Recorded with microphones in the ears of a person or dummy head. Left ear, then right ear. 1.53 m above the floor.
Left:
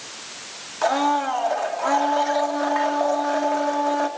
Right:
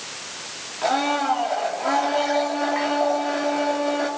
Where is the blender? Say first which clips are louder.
Left 1 dB; 45° left (ahead or behind), 3 m.